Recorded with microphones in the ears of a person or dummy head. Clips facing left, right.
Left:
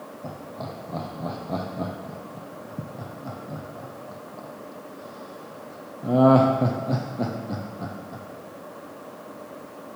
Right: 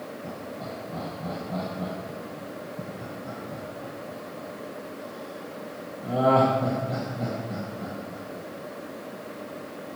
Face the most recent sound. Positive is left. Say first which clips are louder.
# left 3 dB
turn(degrees=80)